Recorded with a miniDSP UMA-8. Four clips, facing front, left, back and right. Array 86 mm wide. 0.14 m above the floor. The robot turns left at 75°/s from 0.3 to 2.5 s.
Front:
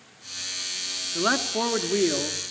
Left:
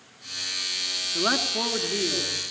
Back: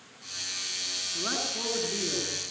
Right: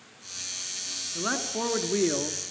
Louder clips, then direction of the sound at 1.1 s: Left 4 dB, front 10 dB; 35° left.